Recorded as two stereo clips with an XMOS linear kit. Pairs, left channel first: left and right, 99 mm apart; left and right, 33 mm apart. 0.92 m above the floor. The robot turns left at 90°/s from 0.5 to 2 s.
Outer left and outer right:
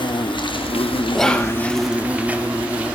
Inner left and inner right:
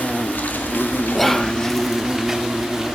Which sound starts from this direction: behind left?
An insect, at 0.0 s.